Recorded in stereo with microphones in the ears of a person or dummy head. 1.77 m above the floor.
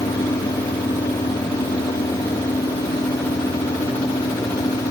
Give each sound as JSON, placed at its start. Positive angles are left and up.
{"t": 0.0, "sound": "an engine running", "side_deg": 15}